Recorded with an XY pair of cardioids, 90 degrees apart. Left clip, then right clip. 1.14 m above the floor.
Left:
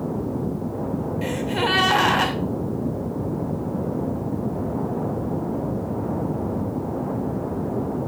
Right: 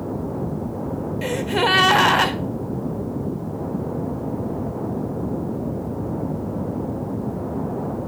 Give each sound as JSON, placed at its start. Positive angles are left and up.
{"t": 1.2, "sound": "a gasp", "azimuth_deg": -35, "distance_m": 2.0}